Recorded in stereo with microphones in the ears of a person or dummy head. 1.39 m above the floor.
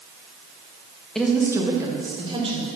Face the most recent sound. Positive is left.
turn(degrees=-30)  # may be behind; listen again after turning